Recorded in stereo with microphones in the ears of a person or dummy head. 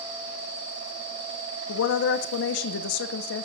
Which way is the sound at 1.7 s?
70° left (ahead or behind).